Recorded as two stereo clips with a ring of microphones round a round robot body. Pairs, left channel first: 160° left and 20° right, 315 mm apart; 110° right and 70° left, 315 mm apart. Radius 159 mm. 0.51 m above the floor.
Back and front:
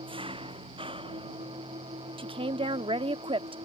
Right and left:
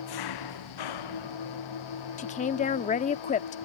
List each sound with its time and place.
0.0 s an engine running: 95° right
2.2 s a woman speaking: 75° right